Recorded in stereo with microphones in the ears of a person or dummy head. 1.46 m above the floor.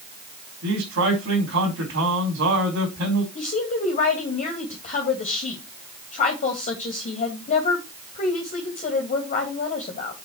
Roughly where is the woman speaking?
Left.